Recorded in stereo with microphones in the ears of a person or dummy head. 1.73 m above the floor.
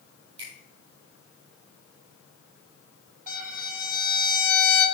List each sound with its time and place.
0.4 s a finger snap: 40° right (ahead or behind), 4 m
3.3 s a violin: 35° right (ahead or behind), 2.5 m